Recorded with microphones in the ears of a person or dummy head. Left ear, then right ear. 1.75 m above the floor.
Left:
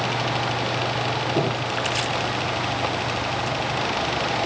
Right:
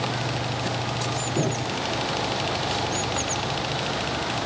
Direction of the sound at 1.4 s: 70° left (ahead or behind).